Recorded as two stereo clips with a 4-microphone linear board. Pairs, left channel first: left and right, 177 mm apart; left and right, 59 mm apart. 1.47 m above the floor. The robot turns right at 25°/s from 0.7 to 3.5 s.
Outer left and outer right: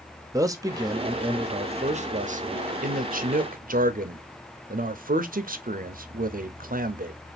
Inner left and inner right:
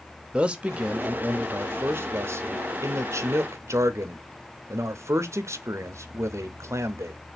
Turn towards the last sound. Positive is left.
turn(degrees=-85)